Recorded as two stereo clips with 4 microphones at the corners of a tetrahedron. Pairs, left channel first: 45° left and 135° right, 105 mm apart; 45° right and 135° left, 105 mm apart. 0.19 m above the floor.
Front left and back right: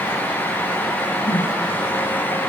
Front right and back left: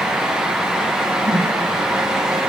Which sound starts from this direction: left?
A whoosh, at 1.2 s.